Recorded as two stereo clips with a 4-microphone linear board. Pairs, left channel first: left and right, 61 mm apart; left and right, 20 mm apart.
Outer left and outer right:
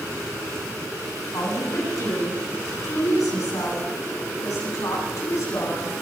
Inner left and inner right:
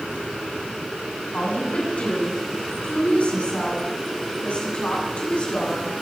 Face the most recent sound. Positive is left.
turn(degrees=60)  # may be behind; listen again after turning